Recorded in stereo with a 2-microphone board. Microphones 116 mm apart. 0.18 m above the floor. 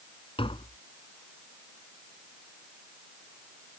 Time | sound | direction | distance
0.4 | tapping | 50° left (ahead or behind) | ?